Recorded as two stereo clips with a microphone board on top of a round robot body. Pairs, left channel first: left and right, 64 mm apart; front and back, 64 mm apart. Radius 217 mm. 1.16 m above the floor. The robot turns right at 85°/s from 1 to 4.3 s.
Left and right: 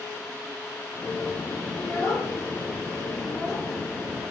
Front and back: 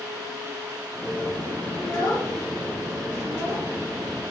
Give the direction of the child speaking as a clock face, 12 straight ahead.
11 o'clock.